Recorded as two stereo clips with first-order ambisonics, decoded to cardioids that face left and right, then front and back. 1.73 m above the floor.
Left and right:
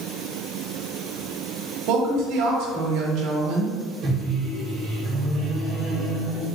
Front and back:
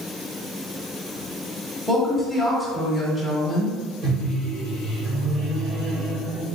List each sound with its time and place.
1.9 s a woman speaking: 90° right, 1.2 m
4.0 s a microwave: 140° right, 1.3 m